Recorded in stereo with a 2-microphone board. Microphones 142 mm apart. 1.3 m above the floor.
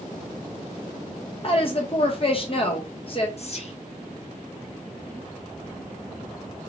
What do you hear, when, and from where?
1.4 s a woman speaking: 40° left (ahead or behind), 0.8 m
3.4 s whispering: 45° left (ahead or behind), 0.6 m